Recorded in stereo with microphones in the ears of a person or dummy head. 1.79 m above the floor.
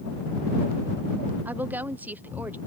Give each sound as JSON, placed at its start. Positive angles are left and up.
{"t": 1.4, "sound": "a woman speaking", "side_deg": -10}